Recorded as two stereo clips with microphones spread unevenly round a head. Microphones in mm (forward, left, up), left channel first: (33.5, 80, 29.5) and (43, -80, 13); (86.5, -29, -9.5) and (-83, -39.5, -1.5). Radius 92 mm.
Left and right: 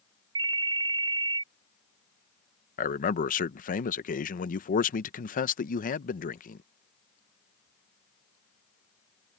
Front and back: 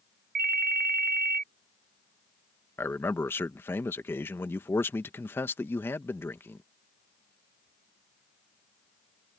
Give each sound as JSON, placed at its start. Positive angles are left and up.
{"t": 0.3, "sound": "a ringtone", "azimuth_deg": -155}
{"t": 2.8, "sound": "a man speaking", "azimuth_deg": 75}